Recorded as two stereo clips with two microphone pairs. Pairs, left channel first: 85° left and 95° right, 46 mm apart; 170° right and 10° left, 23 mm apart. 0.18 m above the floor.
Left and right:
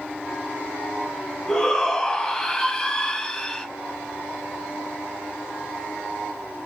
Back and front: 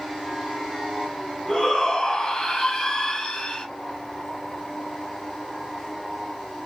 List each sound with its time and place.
1.5 s a shout: 135° left, 1.2 m